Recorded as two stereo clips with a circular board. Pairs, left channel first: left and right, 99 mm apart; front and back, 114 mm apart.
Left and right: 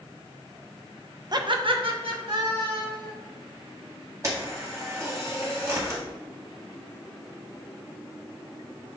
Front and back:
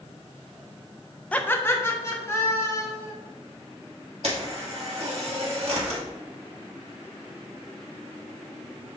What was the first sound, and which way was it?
Laughter, 75° right.